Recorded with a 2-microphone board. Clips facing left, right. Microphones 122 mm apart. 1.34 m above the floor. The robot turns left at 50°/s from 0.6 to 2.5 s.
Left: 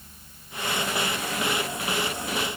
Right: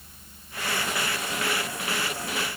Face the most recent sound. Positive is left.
No sound to turn to.